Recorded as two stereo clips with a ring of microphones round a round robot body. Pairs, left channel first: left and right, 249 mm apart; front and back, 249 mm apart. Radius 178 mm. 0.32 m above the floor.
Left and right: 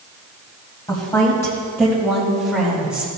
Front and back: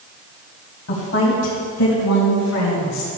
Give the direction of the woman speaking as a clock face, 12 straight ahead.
11 o'clock.